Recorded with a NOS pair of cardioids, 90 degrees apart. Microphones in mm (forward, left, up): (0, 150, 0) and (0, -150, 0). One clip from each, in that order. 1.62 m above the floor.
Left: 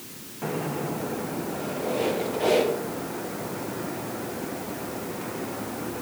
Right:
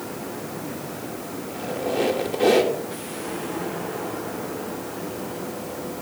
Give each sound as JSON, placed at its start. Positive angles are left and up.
{"t": 1.5, "sound": "a squeak", "azimuth_deg": -65, "distance_m": 2.5}